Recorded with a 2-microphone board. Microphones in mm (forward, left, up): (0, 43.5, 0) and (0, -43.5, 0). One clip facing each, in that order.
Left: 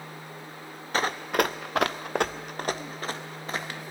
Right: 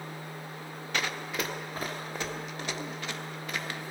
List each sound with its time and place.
0.9 s running footsteps: 35° left (ahead or behind), 0.8 m